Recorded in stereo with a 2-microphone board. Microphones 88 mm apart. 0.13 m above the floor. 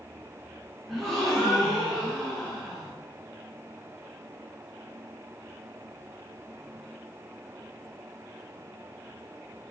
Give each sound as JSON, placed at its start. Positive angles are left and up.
{"t": 0.9, "sound": "a gasp", "side_deg": 0, "distance_m": 4.0}